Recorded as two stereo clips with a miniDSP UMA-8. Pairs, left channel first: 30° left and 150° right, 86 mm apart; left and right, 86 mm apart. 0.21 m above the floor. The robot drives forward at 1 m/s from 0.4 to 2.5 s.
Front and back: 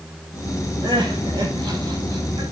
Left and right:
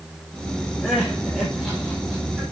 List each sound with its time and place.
0.8 s crying: 175° right, 6 m